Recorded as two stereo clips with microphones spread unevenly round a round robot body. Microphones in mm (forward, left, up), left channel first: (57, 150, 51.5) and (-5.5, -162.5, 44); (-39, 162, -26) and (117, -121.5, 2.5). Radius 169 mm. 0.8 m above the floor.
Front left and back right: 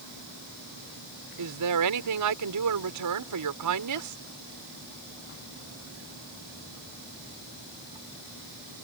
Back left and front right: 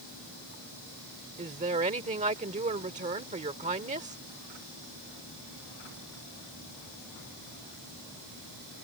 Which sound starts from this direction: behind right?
A woman speaking, at 1.4 s.